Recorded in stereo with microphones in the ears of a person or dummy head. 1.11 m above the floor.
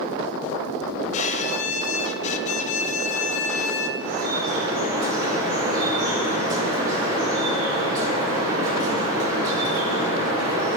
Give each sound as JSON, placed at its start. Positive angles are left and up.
{"t": 1.1, "sound": "a violin", "side_deg": 40, "distance_m": 0.6}
{"t": 4.0, "sound": "dripping", "side_deg": -20, "distance_m": 3.0}